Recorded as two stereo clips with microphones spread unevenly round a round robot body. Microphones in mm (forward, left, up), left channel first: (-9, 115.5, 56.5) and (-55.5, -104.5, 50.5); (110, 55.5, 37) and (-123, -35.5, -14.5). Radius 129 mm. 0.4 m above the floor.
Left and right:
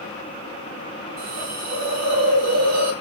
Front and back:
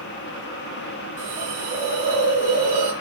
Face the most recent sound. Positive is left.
turn(degrees=-100)